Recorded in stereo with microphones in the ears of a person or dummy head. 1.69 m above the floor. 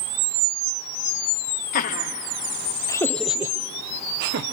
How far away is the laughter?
About 1.5 m.